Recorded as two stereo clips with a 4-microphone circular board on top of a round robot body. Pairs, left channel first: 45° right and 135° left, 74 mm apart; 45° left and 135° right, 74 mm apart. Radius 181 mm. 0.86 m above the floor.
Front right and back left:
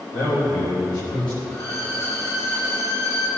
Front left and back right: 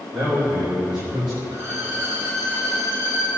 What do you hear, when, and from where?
0.1 s a man speaking: 55° right, 4.5 m
1.5 s a violin: 80° right, 4.5 m